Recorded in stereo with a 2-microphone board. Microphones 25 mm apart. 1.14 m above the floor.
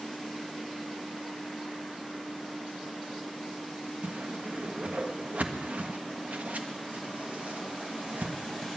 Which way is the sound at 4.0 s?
75° right (ahead or behind).